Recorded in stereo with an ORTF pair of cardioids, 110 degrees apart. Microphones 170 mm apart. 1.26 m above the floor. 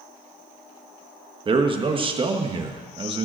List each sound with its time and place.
1.4 s a man speaking: 30° right, 1.4 m